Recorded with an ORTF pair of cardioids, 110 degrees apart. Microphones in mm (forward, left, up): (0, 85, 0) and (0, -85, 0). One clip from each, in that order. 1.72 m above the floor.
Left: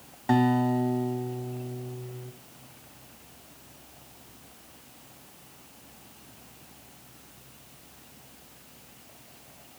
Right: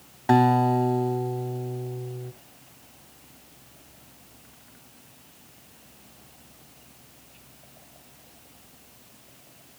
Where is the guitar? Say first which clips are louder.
Right 5 dB; 25° right, 1.0 m.